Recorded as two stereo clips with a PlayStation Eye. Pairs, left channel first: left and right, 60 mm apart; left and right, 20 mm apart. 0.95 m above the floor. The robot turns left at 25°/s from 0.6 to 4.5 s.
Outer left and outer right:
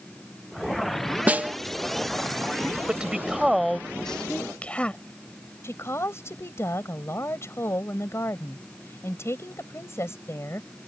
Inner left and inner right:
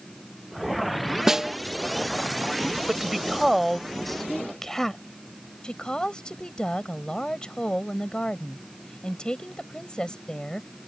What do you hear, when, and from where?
1.3 s a snare drum: 25° right (ahead or behind); by 1.5 s 30° right (ahead or behind)
2.9 s a woman speaking: 20° right (ahead or behind); by 5.0 s 20° left (ahead or behind)
5.6 s a woman speaking: 45° left (ahead or behind)